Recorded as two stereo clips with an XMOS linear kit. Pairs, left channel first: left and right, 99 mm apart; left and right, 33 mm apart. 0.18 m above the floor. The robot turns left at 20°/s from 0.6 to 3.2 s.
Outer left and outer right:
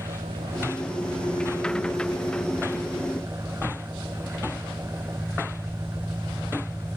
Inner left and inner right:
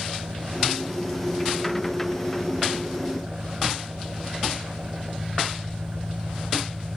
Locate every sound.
0.0 s an engine running: 95° right; by 7.0 s 145° right